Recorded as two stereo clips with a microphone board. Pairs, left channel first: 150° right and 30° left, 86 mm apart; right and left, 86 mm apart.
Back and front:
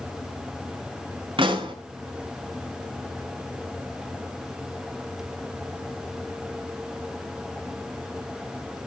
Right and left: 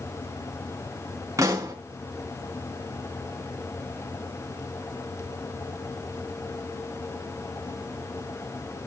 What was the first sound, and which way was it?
A pop, 35° left.